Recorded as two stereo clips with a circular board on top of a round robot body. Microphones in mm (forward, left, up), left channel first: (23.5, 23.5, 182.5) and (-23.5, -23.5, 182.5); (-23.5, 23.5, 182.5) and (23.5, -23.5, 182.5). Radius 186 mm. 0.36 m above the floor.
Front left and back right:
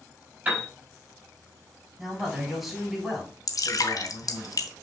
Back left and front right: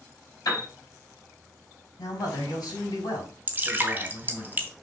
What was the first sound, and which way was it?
A piano, 160° left.